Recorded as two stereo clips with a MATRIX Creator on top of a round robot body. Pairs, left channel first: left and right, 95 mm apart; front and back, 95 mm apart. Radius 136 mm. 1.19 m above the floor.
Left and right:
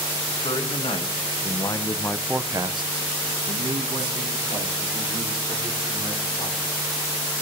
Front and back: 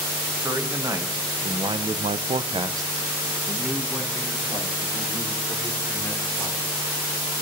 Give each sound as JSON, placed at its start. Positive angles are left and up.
{"t": 0.4, "sound": "a man speaking", "azimuth_deg": 120, "distance_m": 2.0}